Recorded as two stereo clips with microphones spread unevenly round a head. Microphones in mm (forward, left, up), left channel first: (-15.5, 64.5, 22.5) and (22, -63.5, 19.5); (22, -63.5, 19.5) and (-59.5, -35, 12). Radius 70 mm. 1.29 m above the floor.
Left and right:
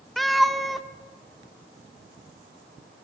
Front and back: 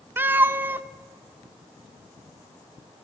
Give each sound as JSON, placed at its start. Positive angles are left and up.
{"t": 0.2, "sound": "a cat meowing", "azimuth_deg": -170, "distance_m": 0.9}